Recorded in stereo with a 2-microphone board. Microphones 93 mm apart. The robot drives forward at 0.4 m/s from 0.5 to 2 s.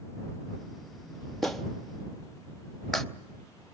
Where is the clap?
5° left (ahead or behind), 0.7 m.